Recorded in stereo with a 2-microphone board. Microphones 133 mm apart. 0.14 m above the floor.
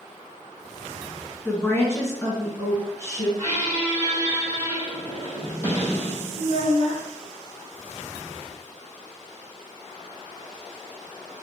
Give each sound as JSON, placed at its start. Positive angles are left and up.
{"t": 1.4, "sound": "a woman speaking", "side_deg": 15, "distance_m": 1.1}
{"t": 3.4, "sound": "a squeak", "side_deg": 20, "distance_m": 2.0}
{"t": 6.4, "sound": "a child speaking", "side_deg": -50, "distance_m": 1.6}